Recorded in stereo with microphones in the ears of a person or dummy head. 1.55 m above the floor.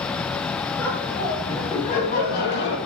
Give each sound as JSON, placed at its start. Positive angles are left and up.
{"t": 0.8, "sound": "laughter", "side_deg": 5, "distance_m": 2.0}